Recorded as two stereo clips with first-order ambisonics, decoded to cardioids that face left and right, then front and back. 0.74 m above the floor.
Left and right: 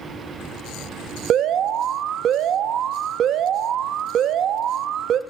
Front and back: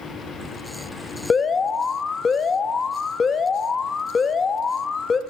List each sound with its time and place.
1.3 s an alarm: 60° right, 0.6 m